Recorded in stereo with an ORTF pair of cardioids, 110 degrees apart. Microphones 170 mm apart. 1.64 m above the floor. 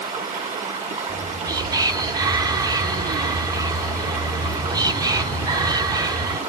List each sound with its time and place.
0.0 s running water: 40° right, 2.5 m
1.1 s whispering: 20° right, 1.4 m